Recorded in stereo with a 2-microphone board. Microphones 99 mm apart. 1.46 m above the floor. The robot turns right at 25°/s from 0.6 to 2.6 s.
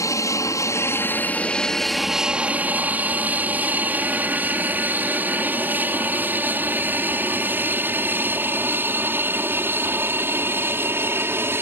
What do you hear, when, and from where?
0.0 s an aircraft: 30° left (ahead or behind); by 11.6 s 25° right (ahead or behind)